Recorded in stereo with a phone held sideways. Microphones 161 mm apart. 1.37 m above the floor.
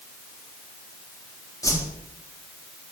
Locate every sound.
1.6 s a whoosh: 20° left (ahead or behind), 4 m